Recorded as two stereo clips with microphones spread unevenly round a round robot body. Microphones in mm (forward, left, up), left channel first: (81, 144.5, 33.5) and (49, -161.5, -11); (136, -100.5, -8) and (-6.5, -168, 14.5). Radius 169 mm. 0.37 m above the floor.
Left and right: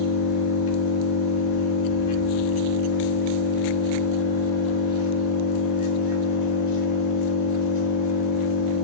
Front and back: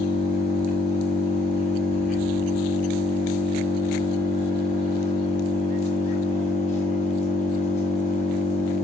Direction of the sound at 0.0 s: 115° left.